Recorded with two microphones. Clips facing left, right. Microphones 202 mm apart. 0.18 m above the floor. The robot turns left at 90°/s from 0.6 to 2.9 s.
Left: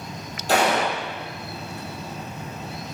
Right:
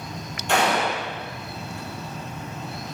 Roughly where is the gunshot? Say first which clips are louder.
Left 1 dB; ahead left.